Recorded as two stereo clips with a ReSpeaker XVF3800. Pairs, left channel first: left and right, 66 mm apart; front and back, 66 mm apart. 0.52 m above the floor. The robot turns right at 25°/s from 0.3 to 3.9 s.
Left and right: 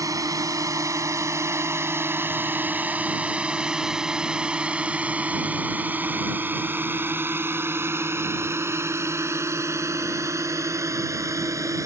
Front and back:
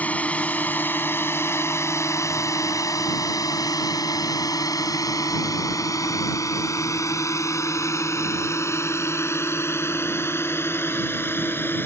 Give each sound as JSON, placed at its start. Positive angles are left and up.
{"t": 0.0, "sound": "a drone", "azimuth_deg": -65}